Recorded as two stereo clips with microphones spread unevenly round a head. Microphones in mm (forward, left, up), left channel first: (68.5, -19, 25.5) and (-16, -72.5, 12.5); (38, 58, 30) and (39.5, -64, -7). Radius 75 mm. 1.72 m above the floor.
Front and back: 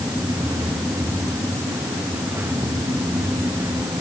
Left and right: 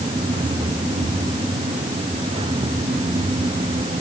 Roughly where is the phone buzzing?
No phone buzzing in this recording.